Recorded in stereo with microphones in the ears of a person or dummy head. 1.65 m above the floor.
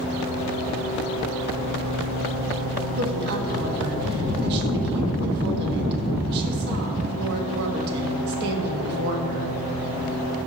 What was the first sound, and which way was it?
A woman speaking, 55° right (ahead or behind).